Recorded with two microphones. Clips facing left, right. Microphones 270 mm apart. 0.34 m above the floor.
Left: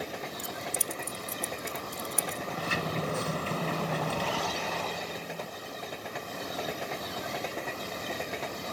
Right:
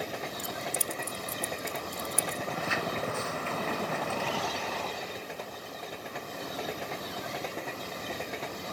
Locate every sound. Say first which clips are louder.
0.4 s keys jangling: right 1 dB; 20° left (ahead or behind)
2.5 s a sliding door: left 2 dB; 35° left (ahead or behind)